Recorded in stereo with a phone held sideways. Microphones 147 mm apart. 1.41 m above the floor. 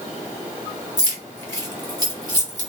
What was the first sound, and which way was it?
Keys jangling, 30° right (ahead or behind).